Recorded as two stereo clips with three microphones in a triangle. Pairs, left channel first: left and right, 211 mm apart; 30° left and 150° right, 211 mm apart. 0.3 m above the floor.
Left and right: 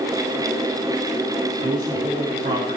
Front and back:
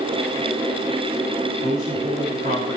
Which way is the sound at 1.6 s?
120° right.